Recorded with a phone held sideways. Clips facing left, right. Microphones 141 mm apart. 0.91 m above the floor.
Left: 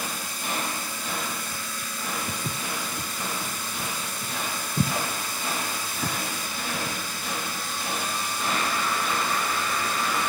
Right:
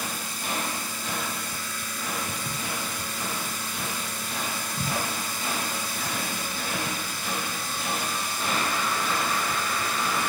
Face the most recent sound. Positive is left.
turn(degrees=65)  # may be behind; listen again after turning